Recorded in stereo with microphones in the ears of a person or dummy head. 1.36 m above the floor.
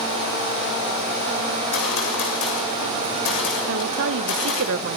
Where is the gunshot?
65° left (ahead or behind), 7 m.